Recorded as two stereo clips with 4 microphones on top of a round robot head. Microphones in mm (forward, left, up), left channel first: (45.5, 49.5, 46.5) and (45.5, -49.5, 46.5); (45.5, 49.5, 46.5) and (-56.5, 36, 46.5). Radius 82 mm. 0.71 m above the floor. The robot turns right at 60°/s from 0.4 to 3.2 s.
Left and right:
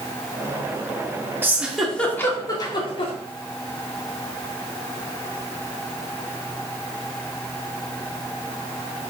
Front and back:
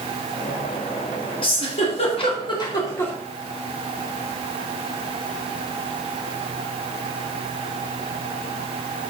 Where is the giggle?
25° right, 2.5 m; by 3.1 s 80° left, 2.5 m.